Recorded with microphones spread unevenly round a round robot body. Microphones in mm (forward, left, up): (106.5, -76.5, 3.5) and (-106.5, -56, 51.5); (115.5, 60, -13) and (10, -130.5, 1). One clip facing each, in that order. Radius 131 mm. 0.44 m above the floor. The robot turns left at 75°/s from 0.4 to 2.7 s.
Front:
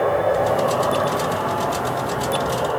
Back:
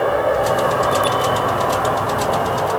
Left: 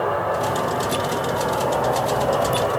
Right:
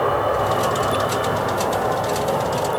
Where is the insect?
85° right, 1.1 m; by 2.8 s 100° left, 1.1 m.